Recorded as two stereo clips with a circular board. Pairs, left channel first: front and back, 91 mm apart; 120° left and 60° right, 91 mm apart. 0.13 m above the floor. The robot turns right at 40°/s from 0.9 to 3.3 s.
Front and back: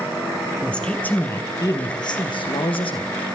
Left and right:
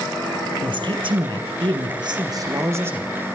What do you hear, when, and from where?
0.6 s a man speaking: 75° right, 3 m; by 3.1 s 10° left, 3 m